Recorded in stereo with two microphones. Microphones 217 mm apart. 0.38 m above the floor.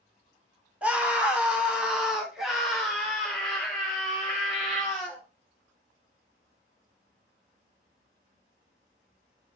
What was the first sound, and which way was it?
A scream, 5° right (ahead or behind).